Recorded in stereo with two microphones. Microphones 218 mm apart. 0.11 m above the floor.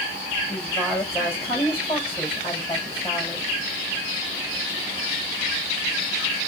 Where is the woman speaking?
25° left (ahead or behind), 4 m.